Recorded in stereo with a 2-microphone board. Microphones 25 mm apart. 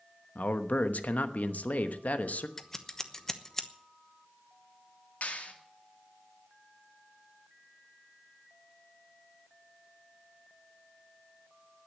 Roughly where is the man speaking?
Left.